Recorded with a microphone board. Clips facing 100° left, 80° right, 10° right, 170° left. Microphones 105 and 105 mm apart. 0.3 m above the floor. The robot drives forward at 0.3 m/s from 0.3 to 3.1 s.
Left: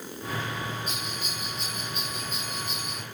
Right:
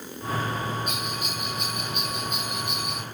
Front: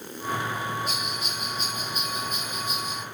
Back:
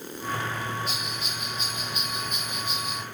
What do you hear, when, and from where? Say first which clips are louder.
0.9 s a bell: right 4 dB, front 2 dB; 55° right, 3 m; by 3.0 s 70° right, 2.5 m